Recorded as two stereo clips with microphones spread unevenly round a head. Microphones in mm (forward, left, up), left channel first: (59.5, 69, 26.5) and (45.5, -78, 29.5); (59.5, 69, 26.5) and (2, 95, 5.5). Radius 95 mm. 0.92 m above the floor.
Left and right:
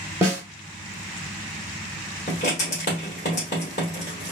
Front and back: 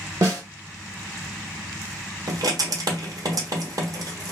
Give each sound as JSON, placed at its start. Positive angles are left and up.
{"t": 0.2, "sound": "a snare drum", "azimuth_deg": -160, "distance_m": 0.8}
{"t": 2.3, "sound": "writing", "azimuth_deg": 135, "distance_m": 1.0}